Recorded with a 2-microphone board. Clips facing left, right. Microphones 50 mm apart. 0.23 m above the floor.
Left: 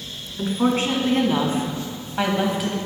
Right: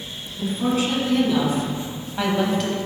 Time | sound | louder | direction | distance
0.4 | a woman speaking | left 2 dB | 45° left (ahead or behind) | 2 m